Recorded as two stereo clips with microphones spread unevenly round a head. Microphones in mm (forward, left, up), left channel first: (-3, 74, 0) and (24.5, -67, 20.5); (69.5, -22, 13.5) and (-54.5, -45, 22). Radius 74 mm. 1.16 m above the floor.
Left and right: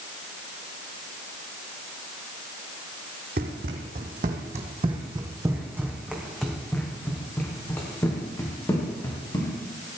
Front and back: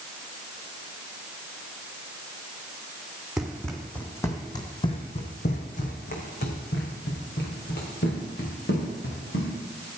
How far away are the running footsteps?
About 3 m.